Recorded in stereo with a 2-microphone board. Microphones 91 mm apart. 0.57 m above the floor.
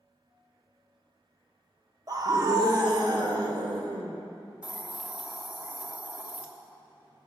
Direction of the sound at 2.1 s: 40° right (ahead or behind).